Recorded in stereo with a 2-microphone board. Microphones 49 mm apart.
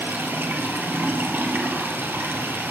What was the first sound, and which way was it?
Running water, 50° right (ahead or behind).